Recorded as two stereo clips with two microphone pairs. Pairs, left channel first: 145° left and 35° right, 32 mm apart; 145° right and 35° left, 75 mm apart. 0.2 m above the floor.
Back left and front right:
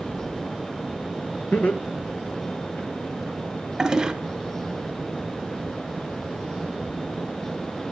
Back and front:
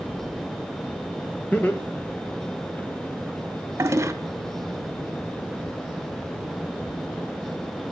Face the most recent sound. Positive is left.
turn(degrees=20)